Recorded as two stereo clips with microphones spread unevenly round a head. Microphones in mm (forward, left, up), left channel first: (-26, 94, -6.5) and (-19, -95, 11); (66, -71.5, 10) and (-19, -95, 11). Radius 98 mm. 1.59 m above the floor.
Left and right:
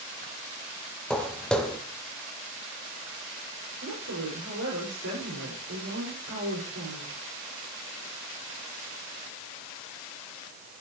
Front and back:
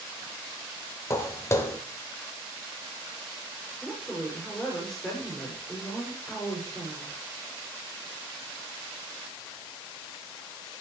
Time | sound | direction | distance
1.1 | footsteps | straight ahead | 1.8 m
3.8 | a woman speaking | 65° right | 6.5 m